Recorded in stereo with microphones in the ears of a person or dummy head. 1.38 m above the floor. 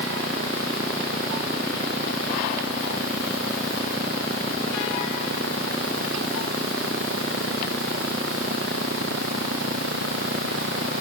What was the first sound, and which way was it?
Only background noise.